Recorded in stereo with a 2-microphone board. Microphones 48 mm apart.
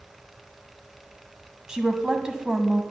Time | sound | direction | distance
1.7 | a woman speaking | 15° right (ahead or behind) | 1.1 m